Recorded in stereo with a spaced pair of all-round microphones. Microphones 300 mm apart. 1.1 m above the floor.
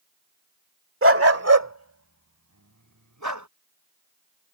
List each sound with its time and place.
1.0 s a dog barking: 45° right (ahead or behind); by 3.5 s 75° right (ahead or behind)